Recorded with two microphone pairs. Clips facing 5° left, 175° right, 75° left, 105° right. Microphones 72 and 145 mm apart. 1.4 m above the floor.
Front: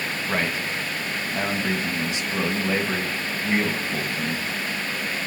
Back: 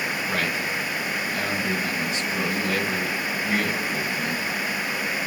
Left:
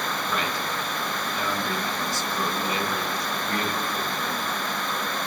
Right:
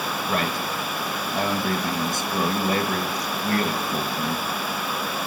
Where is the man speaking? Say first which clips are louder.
Front 3 dB, right 3 dB; 65° right, 1.6 m.